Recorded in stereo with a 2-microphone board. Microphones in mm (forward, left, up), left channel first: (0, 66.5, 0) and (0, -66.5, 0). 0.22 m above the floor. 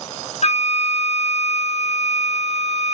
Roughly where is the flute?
Left.